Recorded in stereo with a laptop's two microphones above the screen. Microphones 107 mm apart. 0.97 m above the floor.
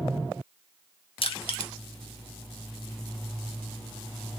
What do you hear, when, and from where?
1.2 s crushing: 55° left (ahead or behind), 0.6 m